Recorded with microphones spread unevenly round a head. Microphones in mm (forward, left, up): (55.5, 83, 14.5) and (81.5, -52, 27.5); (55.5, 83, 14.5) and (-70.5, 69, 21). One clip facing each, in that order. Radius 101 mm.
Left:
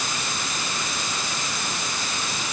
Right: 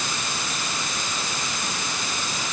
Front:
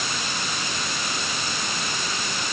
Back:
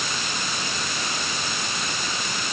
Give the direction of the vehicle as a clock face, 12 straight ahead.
I don't hear a vehicle.